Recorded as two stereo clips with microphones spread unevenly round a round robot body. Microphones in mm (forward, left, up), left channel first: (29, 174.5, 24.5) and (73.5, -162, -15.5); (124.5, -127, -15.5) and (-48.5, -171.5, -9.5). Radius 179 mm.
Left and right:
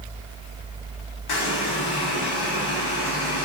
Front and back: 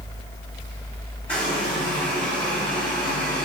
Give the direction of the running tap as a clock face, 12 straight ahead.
9 o'clock.